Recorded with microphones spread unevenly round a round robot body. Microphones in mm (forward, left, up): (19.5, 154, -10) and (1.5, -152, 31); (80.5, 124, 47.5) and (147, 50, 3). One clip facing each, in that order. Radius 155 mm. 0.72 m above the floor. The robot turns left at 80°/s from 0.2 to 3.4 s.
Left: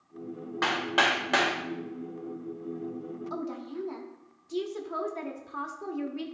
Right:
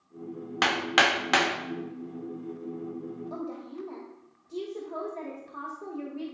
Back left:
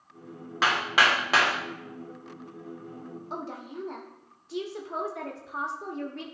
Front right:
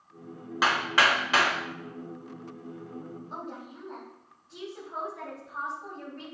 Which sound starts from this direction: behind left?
A woman speaking, at 3.3 s.